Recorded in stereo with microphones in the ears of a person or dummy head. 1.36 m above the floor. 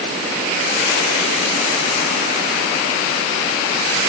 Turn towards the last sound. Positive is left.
No sound to turn to.